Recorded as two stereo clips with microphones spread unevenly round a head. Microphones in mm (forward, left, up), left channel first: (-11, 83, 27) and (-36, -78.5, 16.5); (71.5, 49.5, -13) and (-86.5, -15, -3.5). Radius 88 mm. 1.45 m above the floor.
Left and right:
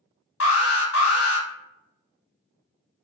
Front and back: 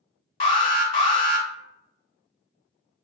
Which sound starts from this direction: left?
An alarm, at 0.4 s.